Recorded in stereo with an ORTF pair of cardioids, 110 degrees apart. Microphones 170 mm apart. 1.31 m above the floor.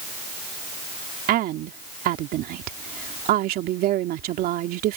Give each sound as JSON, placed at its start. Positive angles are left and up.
{"t": 1.3, "sound": "a woman speaking", "azimuth_deg": -70}